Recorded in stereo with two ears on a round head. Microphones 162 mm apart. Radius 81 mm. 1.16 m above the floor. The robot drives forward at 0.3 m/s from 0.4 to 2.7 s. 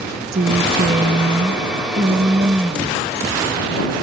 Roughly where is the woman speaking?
Right.